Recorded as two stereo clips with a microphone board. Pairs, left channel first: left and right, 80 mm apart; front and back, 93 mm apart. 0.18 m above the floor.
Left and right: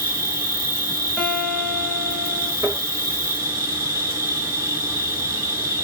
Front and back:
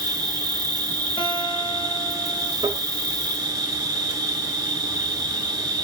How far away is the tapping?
About 0.6 m.